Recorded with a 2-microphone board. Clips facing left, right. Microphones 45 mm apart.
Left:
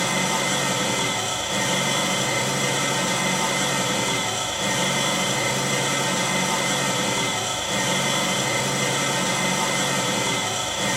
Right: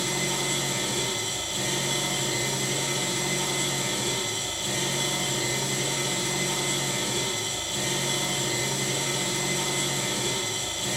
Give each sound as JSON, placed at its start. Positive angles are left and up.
{"t": 0.0, "sound": "an engine running", "side_deg": 90, "distance_m": 8.5}